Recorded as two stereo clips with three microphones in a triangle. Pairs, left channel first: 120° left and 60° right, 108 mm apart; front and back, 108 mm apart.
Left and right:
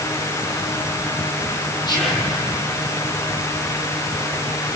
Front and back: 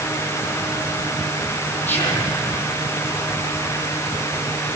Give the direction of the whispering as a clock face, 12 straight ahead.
10 o'clock.